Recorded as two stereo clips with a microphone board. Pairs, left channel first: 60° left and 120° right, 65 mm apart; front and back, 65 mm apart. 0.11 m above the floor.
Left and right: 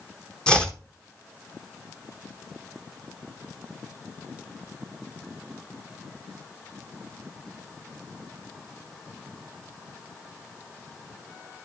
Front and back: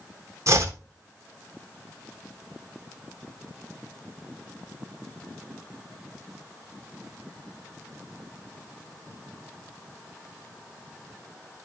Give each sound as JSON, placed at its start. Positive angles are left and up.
{"t": 0.5, "sound": "chopping", "azimuth_deg": 135, "distance_m": 1.3}